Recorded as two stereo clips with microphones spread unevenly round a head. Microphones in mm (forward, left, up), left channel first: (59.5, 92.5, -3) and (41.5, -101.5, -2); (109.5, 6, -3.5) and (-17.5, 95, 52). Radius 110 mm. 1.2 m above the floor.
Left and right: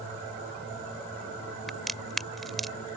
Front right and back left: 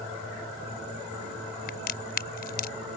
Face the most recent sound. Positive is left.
turn(degrees=-5)